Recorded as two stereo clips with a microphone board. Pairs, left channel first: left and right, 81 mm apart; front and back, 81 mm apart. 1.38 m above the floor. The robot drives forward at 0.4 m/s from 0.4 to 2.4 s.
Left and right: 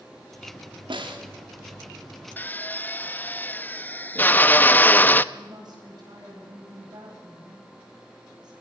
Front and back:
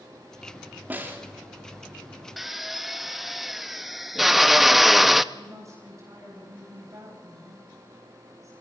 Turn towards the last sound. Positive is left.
turn(degrees=-125)